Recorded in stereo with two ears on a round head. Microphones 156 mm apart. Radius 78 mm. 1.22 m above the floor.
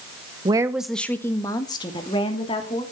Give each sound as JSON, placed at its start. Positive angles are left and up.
{"t": 0.5, "sound": "a woman speaking", "side_deg": -25, "distance_m": 0.8}